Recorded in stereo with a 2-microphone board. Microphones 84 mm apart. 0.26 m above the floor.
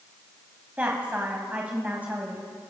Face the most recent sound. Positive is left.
turn(degrees=-20)  # may be behind; listen again after turning